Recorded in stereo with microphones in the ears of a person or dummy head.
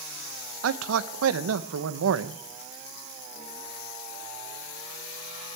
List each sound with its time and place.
0.6 s a man speaking: 80° right, 0.9 m